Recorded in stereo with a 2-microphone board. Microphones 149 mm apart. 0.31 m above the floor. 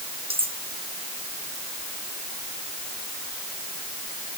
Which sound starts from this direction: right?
Cutlery clinking, at 0.3 s.